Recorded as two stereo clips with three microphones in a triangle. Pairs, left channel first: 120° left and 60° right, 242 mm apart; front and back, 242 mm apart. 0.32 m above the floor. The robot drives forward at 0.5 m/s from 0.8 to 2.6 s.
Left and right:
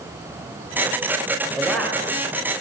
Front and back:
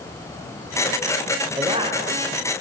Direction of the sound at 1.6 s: 145° right.